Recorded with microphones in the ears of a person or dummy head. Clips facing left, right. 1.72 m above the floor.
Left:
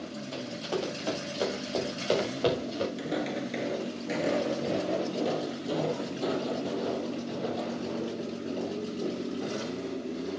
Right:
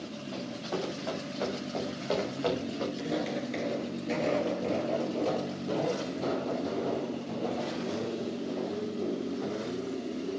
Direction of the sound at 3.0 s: 5° left (ahead or behind).